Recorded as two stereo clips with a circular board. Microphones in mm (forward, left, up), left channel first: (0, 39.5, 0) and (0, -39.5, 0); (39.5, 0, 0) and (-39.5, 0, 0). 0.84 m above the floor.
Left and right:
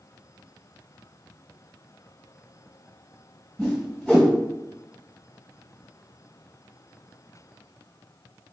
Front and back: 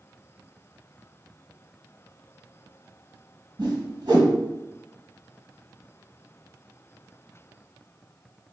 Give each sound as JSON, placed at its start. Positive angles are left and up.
{"t": 3.6, "sound": "a whoosh", "azimuth_deg": 170, "distance_m": 1.2}